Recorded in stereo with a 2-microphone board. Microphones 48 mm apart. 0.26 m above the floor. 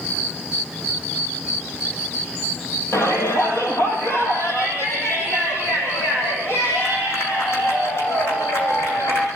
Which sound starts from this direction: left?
A shout, at 2.9 s.